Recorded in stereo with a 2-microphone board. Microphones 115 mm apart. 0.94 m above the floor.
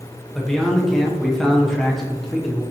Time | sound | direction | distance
0.3 | a man speaking | 5° left (ahead or behind) | 0.7 m